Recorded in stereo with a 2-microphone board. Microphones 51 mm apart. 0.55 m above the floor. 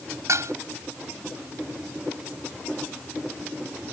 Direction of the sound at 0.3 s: 75° right (ahead or behind).